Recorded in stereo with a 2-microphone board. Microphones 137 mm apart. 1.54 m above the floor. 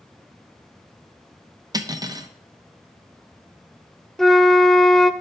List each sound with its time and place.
1.7 s cutlery clinking: 30° right (ahead or behind), 0.8 m
4.2 s a flute: 5° left (ahead or behind), 0.5 m